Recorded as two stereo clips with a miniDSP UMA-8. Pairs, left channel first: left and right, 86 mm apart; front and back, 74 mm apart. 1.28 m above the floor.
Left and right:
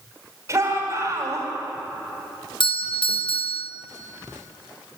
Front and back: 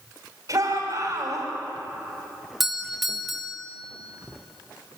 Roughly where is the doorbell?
Left.